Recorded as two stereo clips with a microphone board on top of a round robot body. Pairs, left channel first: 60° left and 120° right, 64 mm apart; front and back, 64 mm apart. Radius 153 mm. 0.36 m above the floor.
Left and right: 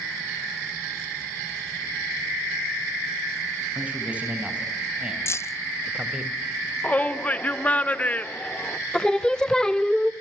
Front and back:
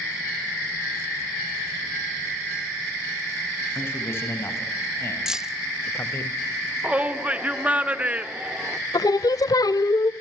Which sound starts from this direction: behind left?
A shout, at 6.8 s.